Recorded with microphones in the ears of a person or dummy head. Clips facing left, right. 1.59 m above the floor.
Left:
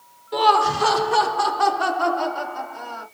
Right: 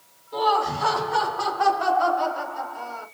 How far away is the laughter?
About 0.8 m.